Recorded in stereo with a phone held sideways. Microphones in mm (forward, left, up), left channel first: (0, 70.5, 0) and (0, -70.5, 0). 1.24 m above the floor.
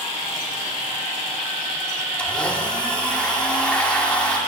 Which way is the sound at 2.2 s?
5° left (ahead or behind).